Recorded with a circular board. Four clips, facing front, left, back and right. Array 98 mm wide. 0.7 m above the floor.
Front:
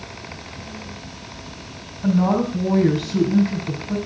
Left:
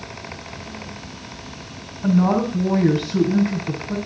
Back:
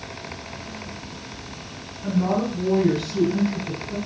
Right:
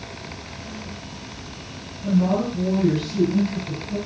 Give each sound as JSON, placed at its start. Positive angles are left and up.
{"t": 2.0, "sound": "a woman speaking", "azimuth_deg": 45, "distance_m": 5.0}